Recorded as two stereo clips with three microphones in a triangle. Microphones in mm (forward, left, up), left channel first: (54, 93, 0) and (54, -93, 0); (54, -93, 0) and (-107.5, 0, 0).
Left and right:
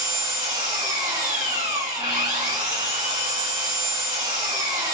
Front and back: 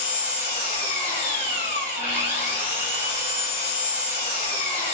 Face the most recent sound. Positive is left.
turn(degrees=-30)